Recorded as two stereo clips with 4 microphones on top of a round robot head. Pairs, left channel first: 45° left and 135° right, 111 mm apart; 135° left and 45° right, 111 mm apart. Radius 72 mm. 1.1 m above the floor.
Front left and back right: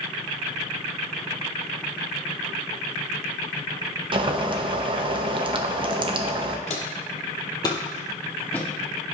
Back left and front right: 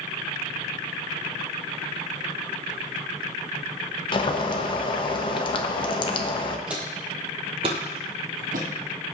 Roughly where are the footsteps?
Ahead left.